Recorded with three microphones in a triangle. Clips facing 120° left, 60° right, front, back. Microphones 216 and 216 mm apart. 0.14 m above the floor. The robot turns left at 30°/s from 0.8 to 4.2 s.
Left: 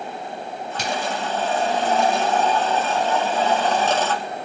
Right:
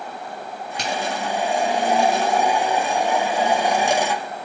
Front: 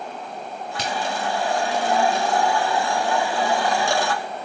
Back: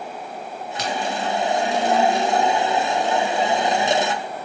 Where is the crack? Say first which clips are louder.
Right 1 dB, back 2 dB; 35° left, 1.7 m; by 0.9 s 30° left, 1.7 m.